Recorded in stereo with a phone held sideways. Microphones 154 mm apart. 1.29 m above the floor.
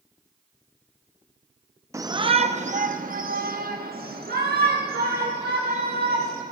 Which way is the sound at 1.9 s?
20° right (ahead or behind).